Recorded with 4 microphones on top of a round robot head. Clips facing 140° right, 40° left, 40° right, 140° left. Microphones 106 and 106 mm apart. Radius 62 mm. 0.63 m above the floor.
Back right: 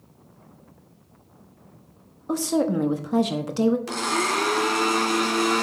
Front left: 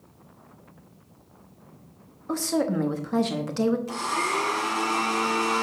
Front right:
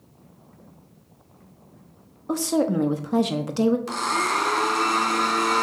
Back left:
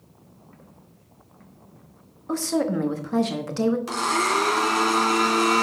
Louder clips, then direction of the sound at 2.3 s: Back right 3 dB, front right 2 dB; 85° right.